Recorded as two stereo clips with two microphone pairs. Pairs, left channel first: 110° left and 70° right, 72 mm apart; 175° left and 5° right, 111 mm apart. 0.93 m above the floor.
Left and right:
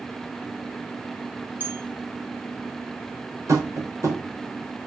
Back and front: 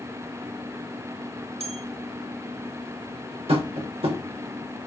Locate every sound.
1.6 s a bell: 10° right, 1.5 m
3.5 s tapping: 25° right, 3.5 m